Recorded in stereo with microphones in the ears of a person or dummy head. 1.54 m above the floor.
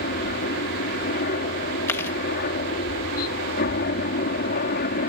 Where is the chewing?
10° left (ahead or behind).